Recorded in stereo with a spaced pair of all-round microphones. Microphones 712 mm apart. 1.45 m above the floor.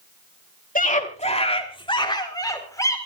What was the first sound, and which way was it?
A scream, 10° left (ahead or behind).